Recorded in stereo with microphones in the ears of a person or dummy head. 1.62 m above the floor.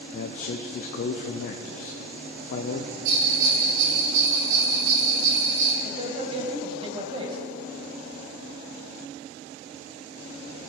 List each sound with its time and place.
0.1 s a man speaking: 50° left (ahead or behind), 0.5 m
3.0 s a bell: 65° right (ahead or behind), 2.5 m
5.8 s a man speaking: 30° right (ahead or behind), 2.5 m